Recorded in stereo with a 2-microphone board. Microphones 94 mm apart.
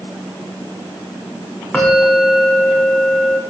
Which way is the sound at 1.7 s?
15° left (ahead or behind).